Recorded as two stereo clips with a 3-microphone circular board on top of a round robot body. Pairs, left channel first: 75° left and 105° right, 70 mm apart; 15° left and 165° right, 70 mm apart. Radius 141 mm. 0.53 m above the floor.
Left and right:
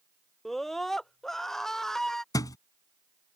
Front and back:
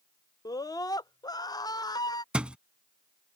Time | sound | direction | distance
0.5 | a scream | 10° right | ?
2.3 | a thud | 120° left | ?